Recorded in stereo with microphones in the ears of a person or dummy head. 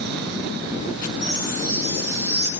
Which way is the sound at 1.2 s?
55° left (ahead or behind).